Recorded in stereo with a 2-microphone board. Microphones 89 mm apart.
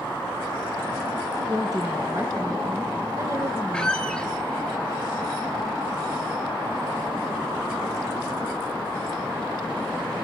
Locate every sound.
1.4 s a woman speaking: 35° right (ahead or behind), 2.5 m
3.7 s a squeak: 10° left (ahead or behind), 1.3 m